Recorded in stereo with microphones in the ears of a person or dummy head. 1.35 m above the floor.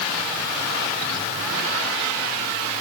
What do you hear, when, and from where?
Only background noise.